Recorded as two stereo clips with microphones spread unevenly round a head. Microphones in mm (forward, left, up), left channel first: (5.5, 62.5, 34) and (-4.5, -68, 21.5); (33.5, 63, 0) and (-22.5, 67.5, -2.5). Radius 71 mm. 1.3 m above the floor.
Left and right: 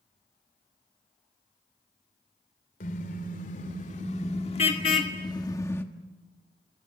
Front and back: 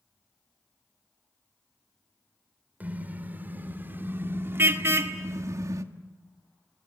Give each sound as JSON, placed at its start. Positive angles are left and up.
{"t": 2.8, "sound": "a car horn", "azimuth_deg": 115, "distance_m": 3.0}